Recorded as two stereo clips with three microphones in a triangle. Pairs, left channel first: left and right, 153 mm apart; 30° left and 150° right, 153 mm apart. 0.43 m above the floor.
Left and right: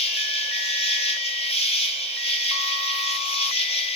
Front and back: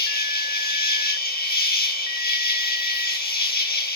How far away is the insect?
About 5 m.